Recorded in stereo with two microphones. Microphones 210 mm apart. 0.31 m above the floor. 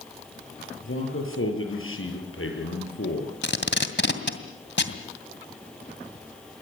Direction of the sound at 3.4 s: 60° left (ahead or behind).